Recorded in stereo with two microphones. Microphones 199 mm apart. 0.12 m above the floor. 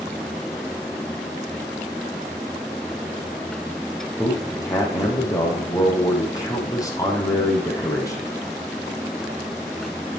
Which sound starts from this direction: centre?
A man speaking, at 4.2 s.